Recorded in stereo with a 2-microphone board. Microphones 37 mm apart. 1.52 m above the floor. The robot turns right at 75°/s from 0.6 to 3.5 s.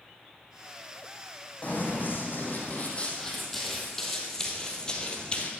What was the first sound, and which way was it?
Running footsteps, 40° left (ahead or behind).